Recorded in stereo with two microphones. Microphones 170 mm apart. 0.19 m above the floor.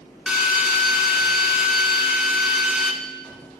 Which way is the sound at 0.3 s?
5° right (ahead or behind).